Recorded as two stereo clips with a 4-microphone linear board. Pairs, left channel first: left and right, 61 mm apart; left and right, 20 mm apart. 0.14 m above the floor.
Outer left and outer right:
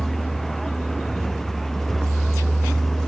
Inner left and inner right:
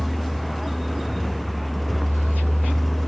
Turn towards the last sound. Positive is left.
turn(degrees=5)  # may be behind; listen again after turning